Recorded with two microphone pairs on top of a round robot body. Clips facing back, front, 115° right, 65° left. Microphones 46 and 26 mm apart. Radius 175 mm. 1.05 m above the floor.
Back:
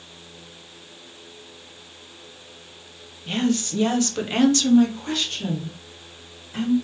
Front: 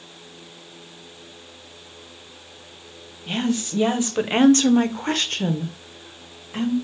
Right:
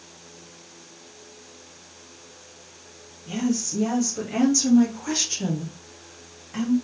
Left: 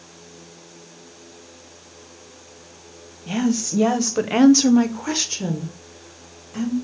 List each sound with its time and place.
3.3 s a woman speaking: 80° left, 1.0 m; by 6.7 s 50° right, 1.2 m